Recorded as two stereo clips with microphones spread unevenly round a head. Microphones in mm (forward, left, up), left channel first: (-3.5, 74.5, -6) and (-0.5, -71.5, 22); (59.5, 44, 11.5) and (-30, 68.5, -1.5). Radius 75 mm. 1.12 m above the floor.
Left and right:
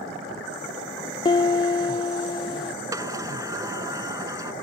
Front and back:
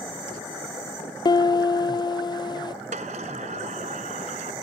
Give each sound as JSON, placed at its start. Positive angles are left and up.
{"t": 1.2, "sound": "a piano", "azimuth_deg": 30}
{"t": 2.9, "sound": "a sliding door", "azimuth_deg": -155}